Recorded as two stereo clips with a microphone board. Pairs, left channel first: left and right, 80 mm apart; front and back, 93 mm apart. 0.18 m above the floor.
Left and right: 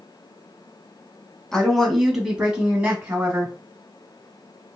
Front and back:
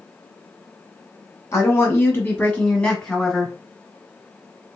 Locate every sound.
1.5 s a woman speaking: 15° left, 1.2 m; by 3.5 s 85° right, 1.2 m